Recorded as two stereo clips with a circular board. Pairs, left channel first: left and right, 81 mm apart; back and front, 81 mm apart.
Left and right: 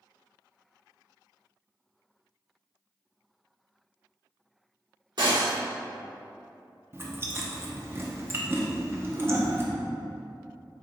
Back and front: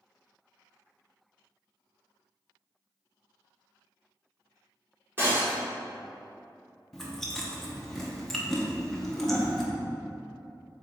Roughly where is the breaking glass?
Ahead right.